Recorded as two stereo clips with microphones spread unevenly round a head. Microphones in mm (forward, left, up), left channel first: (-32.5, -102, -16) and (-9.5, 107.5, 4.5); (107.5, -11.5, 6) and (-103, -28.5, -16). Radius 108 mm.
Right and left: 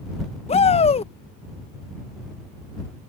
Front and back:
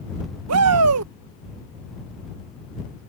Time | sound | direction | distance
0.5 | a shout | 160° right | ?